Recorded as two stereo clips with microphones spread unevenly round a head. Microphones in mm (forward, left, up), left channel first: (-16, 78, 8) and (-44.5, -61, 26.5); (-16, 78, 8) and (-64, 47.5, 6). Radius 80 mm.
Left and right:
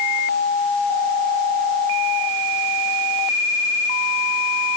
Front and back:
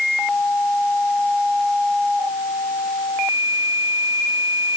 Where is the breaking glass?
No breaking glass in this recording.